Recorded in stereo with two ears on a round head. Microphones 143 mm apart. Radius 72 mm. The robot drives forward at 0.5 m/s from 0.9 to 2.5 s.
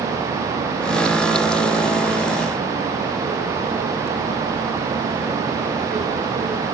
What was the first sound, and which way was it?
Only background noise.